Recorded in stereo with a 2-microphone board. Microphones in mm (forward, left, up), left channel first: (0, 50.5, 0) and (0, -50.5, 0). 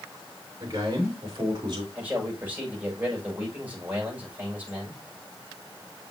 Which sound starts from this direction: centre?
A man speaking, at 1.9 s.